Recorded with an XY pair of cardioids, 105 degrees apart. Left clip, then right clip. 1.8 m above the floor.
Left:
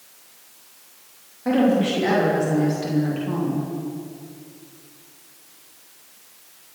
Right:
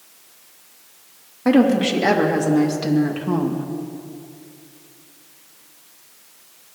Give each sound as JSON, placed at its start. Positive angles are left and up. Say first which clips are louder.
{"t": 1.4, "sound": "a woman speaking", "louder": "right 3 dB", "azimuth_deg": -55, "distance_m": 3.5}